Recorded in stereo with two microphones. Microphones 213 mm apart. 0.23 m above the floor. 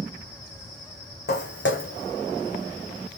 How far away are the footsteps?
About 0.8 m.